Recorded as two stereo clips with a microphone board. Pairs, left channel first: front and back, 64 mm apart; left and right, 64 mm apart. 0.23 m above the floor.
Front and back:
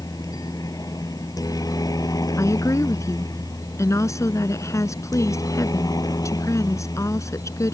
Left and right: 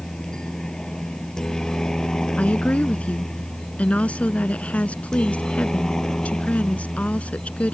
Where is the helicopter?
10° left.